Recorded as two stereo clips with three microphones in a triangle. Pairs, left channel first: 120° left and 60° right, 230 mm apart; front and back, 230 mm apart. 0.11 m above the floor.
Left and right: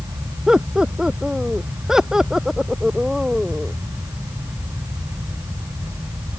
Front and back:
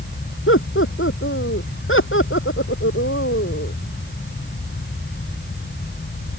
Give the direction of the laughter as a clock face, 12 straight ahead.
11 o'clock.